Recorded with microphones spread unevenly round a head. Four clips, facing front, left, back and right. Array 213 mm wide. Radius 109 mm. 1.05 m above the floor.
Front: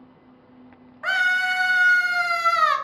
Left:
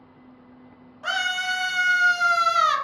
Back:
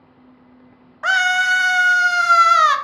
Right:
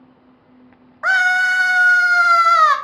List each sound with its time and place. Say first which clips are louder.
1.0 s a scream: right 11 dB, back 5 dB; 130° right, 0.5 m